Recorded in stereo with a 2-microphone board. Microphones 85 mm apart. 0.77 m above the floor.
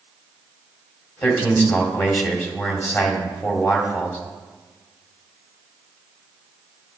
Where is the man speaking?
30° left (ahead or behind), 2 m.